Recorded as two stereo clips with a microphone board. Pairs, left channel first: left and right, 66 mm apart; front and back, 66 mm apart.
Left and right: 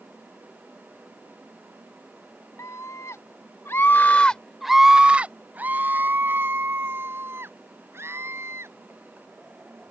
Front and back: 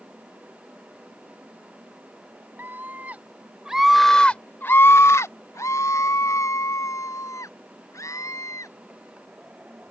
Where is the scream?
125° left; by 8.7 s 40° right.